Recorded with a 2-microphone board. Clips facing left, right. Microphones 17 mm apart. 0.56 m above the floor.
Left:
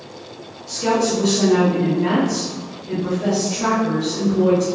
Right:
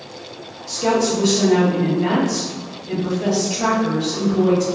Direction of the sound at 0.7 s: 20° right (ahead or behind).